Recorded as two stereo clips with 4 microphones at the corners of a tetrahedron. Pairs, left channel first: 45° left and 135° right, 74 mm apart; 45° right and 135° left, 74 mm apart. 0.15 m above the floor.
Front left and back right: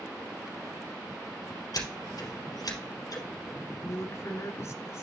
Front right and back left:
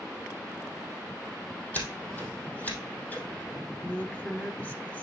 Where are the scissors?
20° left, 2.5 m.